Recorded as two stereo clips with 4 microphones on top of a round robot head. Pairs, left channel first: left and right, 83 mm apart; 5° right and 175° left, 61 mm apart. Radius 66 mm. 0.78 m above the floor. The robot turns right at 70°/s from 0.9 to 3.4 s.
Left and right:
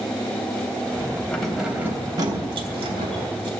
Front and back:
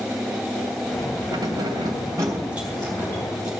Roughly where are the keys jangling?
Behind.